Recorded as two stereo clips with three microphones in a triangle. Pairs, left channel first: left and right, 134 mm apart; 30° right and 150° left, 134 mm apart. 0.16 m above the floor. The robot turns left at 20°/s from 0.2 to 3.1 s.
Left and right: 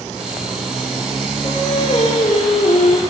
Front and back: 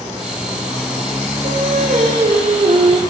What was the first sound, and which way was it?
Singing, 145° left.